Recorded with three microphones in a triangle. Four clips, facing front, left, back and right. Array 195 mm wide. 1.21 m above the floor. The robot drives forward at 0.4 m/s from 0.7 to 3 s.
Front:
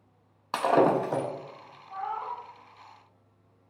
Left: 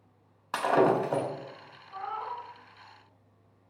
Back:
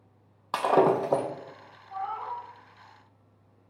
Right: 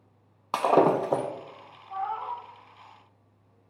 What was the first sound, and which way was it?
Breaking glass, 100° right.